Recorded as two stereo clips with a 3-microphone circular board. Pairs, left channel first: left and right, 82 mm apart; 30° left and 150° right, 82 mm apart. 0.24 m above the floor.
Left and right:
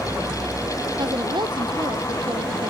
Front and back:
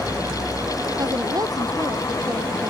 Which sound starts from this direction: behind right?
A woman speaking, at 1.0 s.